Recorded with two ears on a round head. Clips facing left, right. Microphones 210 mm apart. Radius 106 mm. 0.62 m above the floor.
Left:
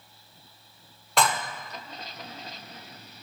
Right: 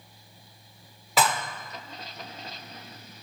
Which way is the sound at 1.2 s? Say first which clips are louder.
Even; 5° right (ahead or behind).